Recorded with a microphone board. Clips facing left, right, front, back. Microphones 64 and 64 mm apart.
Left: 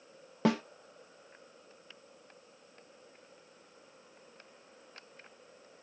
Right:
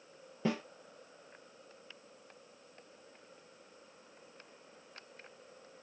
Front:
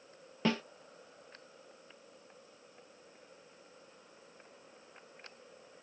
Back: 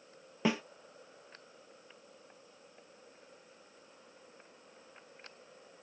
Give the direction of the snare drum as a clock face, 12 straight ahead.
9 o'clock.